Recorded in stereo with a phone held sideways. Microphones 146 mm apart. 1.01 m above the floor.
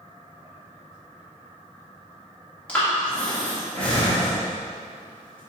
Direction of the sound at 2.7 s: 10° left (ahead or behind).